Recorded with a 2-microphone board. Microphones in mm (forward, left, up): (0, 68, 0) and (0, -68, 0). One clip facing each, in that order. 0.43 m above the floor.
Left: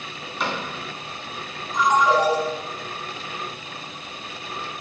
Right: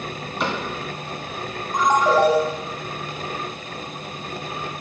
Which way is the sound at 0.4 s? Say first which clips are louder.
Right 2 dB; centre (ahead or behind).